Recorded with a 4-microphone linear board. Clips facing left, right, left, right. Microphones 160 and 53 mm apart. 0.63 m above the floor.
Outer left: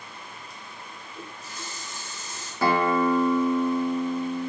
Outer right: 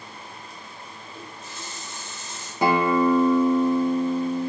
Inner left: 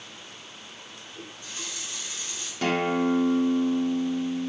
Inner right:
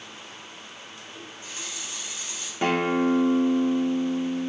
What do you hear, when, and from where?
1.1 s a running tap: 25° right (ahead or behind), 1.1 m
2.6 s a guitar: 20° right (ahead or behind), 0.5 m